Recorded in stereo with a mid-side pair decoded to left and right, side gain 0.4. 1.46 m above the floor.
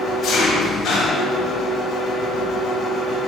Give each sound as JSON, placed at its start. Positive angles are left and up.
{"t": 0.0, "sound": "an engine running", "azimuth_deg": 60, "distance_m": 2.0}